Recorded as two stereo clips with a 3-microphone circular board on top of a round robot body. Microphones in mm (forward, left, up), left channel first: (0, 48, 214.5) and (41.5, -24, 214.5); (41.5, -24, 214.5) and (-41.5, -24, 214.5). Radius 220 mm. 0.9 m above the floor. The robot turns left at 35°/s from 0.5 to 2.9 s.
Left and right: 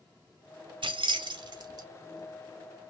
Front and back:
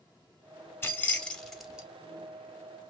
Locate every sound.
0.8 s keys jangling: 65° right, 0.8 m; by 1.9 s 100° right, 0.8 m